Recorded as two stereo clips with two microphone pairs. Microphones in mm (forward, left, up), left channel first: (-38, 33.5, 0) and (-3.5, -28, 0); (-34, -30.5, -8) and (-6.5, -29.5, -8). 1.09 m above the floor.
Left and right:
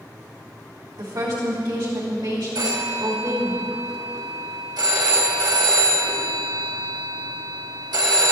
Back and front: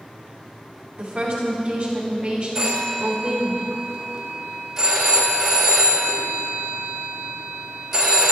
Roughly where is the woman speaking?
Ahead right.